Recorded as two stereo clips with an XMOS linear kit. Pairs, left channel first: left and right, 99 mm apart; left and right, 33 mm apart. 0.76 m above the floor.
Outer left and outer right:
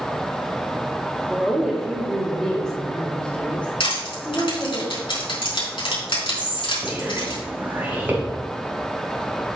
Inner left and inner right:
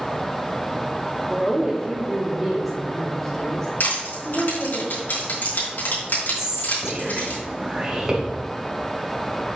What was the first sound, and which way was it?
A woman speaking, 10° right (ahead or behind).